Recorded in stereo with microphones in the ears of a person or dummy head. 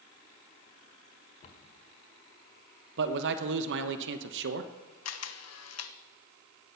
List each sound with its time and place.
1.4 s a cupboard door: 40° left (ahead or behind), 1.3 m
3.0 s a man speaking: 65° right (ahead or behind), 1.0 m
5.0 s a camera shutter: 75° left (ahead or behind), 1.0 m